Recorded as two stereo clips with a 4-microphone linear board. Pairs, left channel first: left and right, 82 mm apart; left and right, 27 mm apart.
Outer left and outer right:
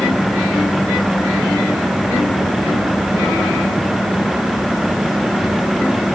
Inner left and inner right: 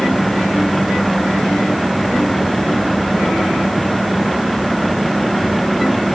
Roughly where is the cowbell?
I don't hear a cowbell.